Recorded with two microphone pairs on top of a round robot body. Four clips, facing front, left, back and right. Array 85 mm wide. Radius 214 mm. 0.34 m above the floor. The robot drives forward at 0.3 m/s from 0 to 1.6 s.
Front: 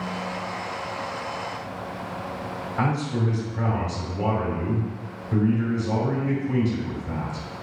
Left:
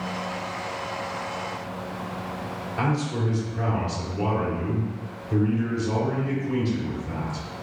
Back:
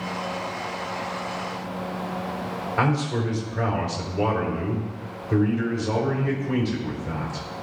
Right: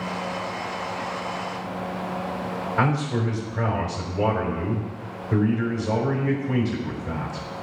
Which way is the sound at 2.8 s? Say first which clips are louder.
Right 2 dB, back 2 dB; 165° right.